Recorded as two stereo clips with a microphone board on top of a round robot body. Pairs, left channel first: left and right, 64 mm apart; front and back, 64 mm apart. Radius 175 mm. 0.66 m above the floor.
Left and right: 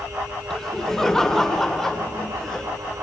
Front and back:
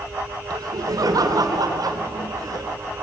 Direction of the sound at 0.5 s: 170° left.